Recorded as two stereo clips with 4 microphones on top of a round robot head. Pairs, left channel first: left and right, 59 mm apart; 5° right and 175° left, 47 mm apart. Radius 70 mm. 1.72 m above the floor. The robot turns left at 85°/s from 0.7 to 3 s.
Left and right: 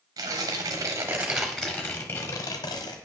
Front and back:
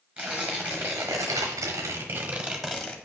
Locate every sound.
0.2 s tearing paper: 105° right, 0.9 m; by 3.0 s 60° left, 0.9 m